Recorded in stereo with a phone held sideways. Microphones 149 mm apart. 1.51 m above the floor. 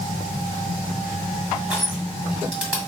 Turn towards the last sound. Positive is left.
turn(degrees=-10)  # may be behind; listen again after turning